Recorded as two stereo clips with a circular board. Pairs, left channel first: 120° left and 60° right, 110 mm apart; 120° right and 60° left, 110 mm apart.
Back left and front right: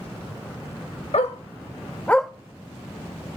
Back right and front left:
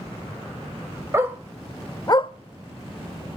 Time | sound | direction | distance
1.1 | a dog barking | 125° left | 0.9 m